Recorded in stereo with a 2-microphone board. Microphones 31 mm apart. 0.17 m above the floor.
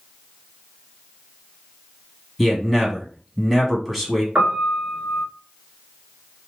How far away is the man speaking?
About 1.3 m.